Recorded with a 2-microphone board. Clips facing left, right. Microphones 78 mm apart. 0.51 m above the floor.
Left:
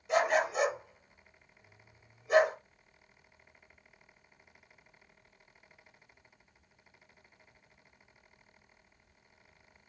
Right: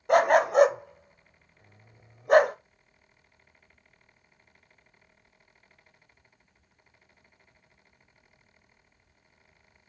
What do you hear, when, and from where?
0.1 s a dog barking: 55° right (ahead or behind), 0.6 m